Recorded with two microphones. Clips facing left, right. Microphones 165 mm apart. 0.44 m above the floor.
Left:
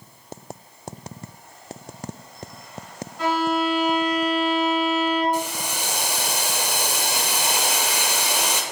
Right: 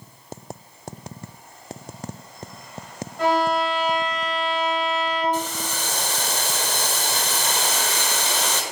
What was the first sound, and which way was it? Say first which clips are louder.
A violin: right 1 dB; 55° right (ahead or behind).